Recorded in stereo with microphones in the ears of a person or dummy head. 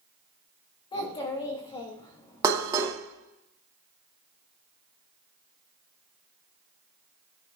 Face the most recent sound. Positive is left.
turn(degrees=-15)  # may be behind; listen again after turning